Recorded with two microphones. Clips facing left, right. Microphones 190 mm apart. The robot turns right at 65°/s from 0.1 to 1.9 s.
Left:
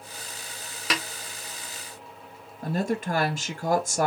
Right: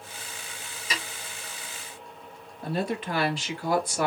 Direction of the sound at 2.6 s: 45° left (ahead or behind).